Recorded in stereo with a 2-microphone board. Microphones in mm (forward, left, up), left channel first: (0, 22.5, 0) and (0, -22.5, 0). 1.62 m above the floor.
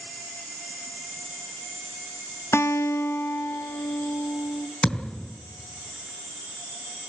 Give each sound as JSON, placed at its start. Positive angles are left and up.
{"t": 2.5, "sound": "a guitar", "side_deg": 75, "distance_m": 0.7}
{"t": 4.8, "sound": "a thud", "side_deg": 30, "distance_m": 4.0}